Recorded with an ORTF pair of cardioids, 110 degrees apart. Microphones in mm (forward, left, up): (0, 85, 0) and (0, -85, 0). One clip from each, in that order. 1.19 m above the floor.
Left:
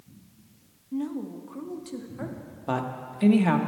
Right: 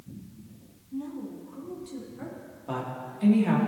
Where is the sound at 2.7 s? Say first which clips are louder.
Left 4 dB; 45° left, 1.3 m.